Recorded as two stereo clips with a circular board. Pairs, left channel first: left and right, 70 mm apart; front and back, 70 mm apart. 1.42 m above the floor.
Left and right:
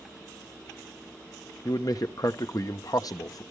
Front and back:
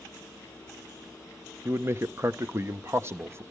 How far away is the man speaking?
About 0.9 m.